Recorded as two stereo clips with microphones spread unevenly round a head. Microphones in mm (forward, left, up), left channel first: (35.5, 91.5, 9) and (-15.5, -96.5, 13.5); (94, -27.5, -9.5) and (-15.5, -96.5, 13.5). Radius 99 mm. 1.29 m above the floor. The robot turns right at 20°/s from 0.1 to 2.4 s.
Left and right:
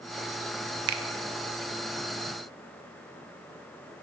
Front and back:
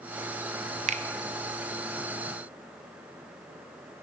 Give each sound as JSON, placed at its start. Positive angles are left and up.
{"t": 0.9, "sound": "a finger snap", "azimuth_deg": -115, "distance_m": 0.6}